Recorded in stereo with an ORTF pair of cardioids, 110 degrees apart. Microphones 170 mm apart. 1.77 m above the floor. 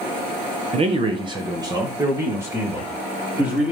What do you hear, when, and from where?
0.7 s a man speaking: 40° right, 1.7 m; by 3.7 s 10° right, 4.5 m